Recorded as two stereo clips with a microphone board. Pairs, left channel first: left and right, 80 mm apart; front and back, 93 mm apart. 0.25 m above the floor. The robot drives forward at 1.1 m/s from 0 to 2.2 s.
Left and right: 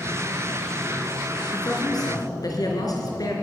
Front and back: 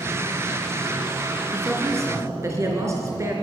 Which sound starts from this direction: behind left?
A man speaking, at 1.5 s.